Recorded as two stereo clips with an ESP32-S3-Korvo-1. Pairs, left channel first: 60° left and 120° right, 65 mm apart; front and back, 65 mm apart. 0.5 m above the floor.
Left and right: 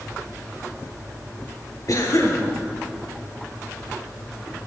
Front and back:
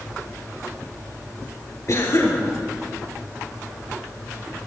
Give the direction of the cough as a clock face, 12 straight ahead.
11 o'clock.